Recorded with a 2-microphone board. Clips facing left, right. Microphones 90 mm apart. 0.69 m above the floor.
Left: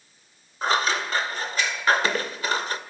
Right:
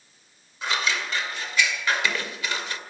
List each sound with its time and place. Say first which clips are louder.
0.6 s scissors: left 4 dB; 40° left (ahead or behind), 2.0 m